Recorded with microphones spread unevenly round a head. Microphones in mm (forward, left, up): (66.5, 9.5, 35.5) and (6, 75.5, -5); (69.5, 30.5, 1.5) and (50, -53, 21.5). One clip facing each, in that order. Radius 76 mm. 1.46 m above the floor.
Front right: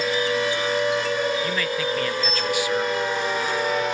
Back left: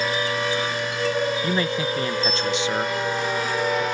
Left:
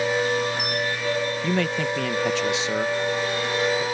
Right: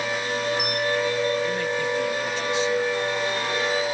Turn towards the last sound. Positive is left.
turn(degrees=70)